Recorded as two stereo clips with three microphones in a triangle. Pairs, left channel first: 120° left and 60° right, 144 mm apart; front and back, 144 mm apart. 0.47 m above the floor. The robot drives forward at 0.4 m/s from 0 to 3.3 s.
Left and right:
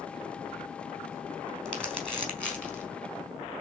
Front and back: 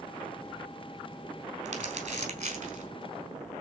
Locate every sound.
1.6 s crumpling: 155° right, 4.5 m; by 2.9 s 160° right, 5 m